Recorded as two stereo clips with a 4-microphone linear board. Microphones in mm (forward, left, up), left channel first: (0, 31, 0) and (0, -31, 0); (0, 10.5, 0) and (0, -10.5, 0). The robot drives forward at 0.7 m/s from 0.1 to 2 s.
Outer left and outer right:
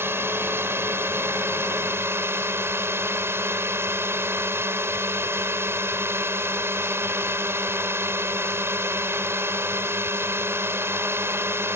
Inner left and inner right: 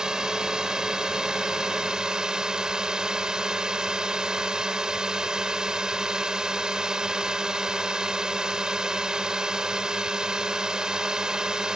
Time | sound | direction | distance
0.0 | a drone | 40° right (ahead or behind) | ?